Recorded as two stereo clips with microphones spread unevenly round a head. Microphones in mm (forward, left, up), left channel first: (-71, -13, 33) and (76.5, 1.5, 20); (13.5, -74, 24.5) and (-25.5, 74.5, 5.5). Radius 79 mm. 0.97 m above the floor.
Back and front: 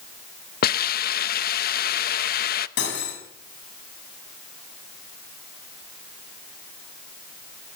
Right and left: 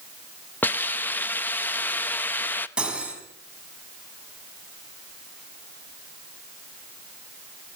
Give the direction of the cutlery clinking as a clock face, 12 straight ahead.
6 o'clock.